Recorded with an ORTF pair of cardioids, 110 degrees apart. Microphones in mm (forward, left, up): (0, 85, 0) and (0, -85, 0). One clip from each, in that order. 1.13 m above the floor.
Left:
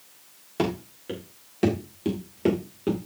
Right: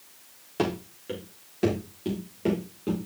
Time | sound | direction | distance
0.6 | running footsteps | 10° left | 4.5 m